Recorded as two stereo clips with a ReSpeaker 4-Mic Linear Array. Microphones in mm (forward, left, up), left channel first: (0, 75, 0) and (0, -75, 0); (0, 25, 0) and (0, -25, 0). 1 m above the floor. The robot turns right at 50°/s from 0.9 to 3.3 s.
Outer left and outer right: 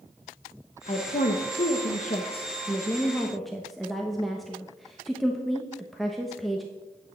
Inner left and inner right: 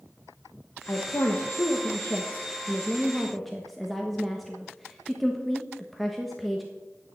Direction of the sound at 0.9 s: 45° left (ahead or behind).